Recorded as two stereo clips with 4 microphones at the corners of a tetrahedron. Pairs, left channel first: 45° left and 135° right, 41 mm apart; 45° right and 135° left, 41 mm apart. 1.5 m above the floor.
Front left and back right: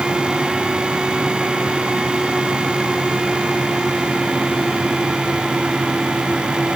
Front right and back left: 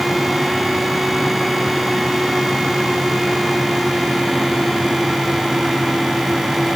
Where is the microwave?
No microwave in this recording.